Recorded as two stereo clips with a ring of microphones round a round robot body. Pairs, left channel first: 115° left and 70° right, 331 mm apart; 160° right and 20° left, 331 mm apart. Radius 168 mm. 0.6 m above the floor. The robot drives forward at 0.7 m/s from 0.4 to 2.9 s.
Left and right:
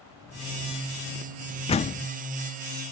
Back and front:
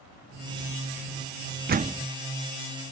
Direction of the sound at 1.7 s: 50° left.